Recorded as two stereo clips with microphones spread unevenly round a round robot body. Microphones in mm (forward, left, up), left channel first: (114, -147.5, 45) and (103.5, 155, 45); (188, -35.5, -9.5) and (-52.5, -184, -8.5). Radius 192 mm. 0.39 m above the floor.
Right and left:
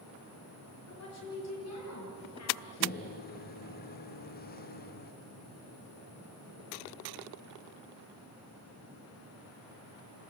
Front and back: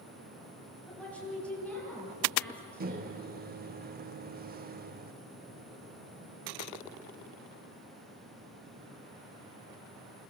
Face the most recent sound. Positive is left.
turn(degrees=-120)